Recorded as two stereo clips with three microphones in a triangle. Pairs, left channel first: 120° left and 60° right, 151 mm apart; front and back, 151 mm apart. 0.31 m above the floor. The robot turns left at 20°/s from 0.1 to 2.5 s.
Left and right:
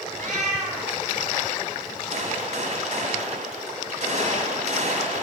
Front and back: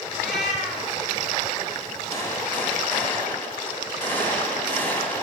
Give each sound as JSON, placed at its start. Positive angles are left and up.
{"t": 0.2, "sound": "a cat meowing", "azimuth_deg": -85, "distance_m": 2.5}
{"t": 2.1, "sound": "a gunshot", "azimuth_deg": -65, "distance_m": 1.9}